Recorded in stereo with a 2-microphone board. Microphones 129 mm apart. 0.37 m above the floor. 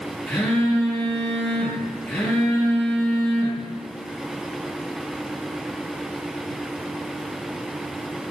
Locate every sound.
0.3 s a phone buzzing: 10° left (ahead or behind), 5.5 m